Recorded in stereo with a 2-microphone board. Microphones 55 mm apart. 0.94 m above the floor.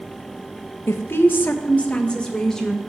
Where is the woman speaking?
50° left (ahead or behind), 0.8 m; by 2.8 s 5° left (ahead or behind), 1.3 m.